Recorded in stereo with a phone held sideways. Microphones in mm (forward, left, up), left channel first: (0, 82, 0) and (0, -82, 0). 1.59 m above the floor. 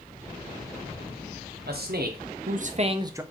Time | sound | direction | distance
1.7 | a man speaking | 80° right | 1.1 m